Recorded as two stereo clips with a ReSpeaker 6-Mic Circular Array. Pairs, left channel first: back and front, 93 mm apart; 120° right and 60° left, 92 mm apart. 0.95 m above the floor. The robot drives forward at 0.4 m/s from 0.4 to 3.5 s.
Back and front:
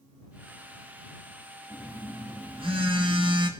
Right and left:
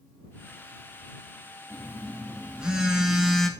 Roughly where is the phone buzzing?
Ahead.